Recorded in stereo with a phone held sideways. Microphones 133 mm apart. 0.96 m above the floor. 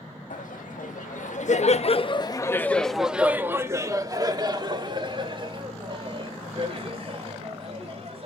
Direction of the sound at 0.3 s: 85° left.